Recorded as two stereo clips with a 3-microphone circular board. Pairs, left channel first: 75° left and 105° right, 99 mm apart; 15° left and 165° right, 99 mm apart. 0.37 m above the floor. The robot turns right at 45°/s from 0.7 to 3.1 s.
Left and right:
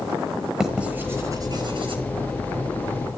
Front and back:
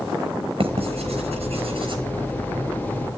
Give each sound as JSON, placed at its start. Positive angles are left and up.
{"t": 0.6, "sound": "writing", "azimuth_deg": 170, "distance_m": 5.5}